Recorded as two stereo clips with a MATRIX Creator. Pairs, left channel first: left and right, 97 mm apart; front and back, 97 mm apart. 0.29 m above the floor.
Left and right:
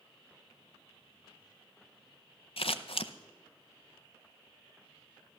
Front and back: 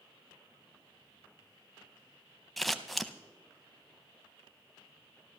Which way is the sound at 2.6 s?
90° left.